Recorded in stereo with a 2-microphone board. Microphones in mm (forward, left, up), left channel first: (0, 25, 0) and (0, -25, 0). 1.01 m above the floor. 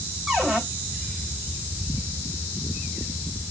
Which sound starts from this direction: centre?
A cupboard door, at 0.3 s.